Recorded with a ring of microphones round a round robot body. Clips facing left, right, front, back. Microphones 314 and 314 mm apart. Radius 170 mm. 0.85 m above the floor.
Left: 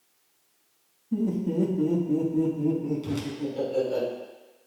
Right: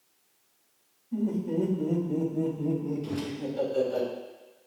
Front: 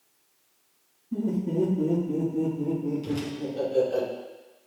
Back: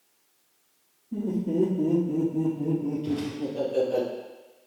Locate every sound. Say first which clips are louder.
1.1 s laughter: left 2 dB, even; 70° left, 1.4 m; by 4.0 s 120° left, 3.5 m
3.0 s a whoosh: left 2 dB, back 2 dB; 50° left, 1.6 m